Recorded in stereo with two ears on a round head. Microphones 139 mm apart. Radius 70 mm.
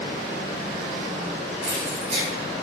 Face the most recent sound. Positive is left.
turn(degrees=-50)  # may be behind; listen again after turning